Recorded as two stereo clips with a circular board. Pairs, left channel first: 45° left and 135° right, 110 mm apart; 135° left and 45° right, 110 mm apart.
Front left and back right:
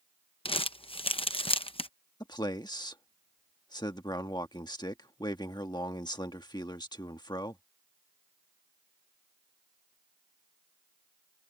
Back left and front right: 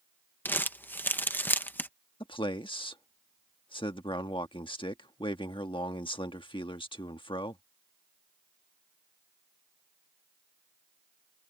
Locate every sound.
0.5 s crumpling: 65° left
2.2 s a man speaking: 95° left